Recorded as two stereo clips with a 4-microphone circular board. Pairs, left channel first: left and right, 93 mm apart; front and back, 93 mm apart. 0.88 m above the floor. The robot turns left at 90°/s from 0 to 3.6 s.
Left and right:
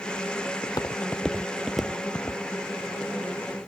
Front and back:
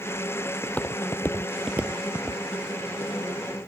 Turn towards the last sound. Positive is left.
turn(degrees=5)